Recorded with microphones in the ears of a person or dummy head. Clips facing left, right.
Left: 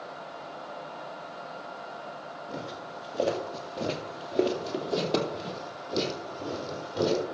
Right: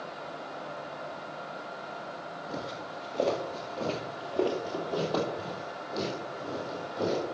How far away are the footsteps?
About 2 m.